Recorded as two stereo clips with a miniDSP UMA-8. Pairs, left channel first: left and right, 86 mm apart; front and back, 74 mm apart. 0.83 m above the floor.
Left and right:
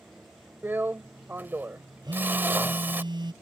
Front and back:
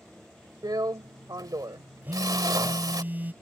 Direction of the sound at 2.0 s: 115° right.